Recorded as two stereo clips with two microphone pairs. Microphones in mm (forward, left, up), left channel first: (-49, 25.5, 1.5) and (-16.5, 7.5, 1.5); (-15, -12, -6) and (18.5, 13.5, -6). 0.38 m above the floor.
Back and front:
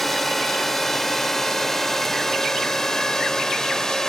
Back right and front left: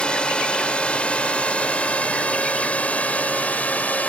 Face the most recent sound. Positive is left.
turn(degrees=-140)